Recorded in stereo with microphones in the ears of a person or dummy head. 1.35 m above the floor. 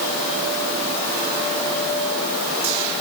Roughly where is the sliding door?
No sliding door in this recording.